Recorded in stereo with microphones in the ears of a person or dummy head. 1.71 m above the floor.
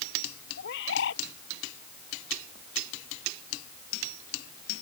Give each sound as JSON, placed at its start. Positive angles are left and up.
{"t": 0.6, "sound": "a bird", "side_deg": 70}